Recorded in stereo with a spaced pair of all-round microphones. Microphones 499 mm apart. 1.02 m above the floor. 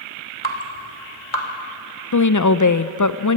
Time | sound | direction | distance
0.4 | dripping | 65° left (ahead or behind) | 2.5 m
2.1 | a woman speaking | 40° left (ahead or behind) | 0.6 m